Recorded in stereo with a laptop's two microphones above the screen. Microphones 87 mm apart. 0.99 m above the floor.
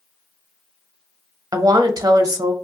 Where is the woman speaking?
45° right (ahead or behind), 0.7 m.